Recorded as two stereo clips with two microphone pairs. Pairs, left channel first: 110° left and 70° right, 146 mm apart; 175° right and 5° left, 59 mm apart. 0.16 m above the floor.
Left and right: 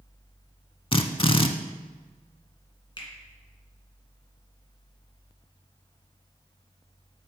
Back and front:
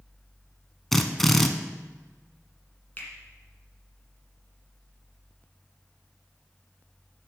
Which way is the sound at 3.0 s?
140° left.